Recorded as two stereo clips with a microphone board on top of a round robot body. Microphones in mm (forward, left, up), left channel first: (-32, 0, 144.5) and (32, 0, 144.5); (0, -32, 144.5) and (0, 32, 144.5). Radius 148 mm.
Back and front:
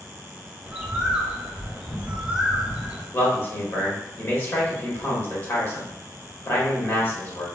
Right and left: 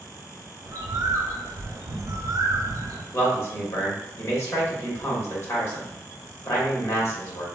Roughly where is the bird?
Left.